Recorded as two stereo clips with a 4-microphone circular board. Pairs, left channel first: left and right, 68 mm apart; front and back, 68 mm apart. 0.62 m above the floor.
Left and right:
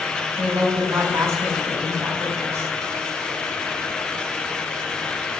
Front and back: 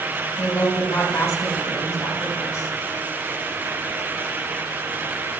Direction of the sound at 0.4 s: 40° right.